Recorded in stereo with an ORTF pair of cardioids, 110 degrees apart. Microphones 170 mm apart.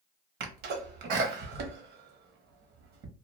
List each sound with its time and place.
0.4 s a sneeze: 70° right, 1.1 m